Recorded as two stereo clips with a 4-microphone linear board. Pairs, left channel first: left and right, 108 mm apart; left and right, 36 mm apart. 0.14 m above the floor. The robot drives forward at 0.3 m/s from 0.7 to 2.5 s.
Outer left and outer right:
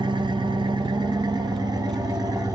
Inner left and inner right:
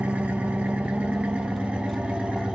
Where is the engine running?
45° right (ahead or behind), 1.3 m; by 2.5 s 35° right (ahead or behind), 1.7 m.